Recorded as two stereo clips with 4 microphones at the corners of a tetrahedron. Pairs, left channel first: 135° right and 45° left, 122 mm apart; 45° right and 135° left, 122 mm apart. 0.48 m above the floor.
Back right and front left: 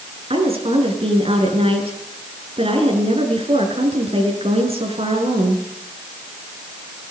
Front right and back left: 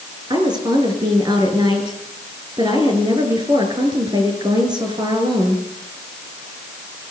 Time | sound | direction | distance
0.3 | a woman speaking | 80° left | 6 m